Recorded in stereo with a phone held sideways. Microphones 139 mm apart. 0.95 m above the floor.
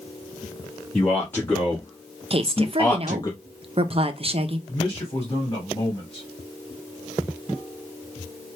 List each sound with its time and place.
0.9 s a man speaking: 15° left (ahead or behind), 1.8 m; by 3.3 s 30° left (ahead or behind), 0.8 m
2.3 s a woman speaking: 45° right (ahead or behind), 0.6 m
4.7 s a man speaking: 30° left (ahead or behind), 2 m